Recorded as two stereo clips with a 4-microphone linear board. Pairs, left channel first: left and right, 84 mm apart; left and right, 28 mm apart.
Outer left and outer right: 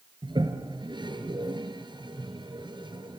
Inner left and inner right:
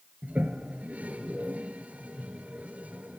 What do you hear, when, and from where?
0.2 s a toilet flushing: 70° right (ahead or behind), 2 m